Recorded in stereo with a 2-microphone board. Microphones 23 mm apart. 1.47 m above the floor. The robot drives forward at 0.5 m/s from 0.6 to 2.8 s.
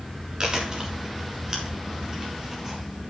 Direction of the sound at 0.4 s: 35° right (ahead or behind).